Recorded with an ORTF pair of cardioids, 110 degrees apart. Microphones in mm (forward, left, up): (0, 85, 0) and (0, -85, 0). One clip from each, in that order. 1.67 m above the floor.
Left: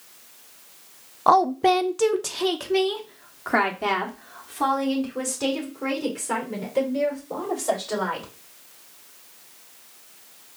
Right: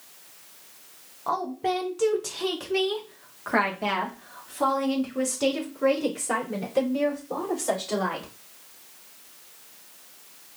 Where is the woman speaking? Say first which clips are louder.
Left 10 dB; 55° left, 0.6 m; by 8.3 s straight ahead, 4 m.